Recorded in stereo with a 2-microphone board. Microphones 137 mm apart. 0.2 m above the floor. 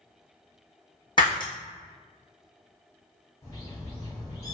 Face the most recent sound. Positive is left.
turn(degrees=25)  # may be behind; listen again after turning